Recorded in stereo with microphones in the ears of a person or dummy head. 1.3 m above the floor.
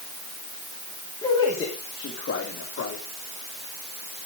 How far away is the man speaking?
About 2.5 m.